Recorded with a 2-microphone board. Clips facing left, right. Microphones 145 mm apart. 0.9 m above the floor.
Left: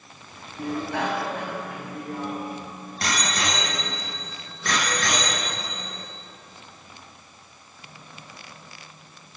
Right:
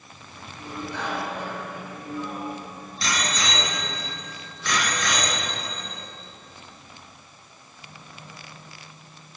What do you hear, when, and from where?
0.6 s a bicycle bell: 90° left, 5 m; by 6.0 s 45° left (ahead or behind), 10.5 m